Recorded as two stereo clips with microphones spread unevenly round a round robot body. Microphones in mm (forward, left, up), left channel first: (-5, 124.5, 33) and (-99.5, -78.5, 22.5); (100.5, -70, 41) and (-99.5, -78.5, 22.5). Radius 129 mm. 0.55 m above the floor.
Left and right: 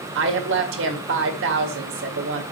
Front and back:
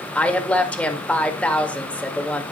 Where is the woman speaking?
85° right, 1.9 m.